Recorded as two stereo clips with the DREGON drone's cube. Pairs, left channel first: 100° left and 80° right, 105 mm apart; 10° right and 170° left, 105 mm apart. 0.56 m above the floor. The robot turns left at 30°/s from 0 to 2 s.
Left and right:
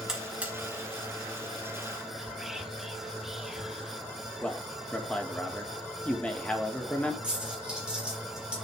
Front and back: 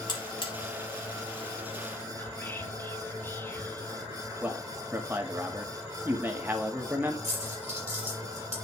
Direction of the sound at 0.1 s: 5° left.